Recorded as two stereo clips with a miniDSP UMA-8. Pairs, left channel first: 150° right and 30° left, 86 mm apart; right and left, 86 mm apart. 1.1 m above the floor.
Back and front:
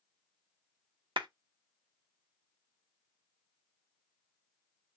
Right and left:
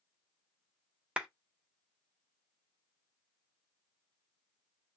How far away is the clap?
About 1.0 m.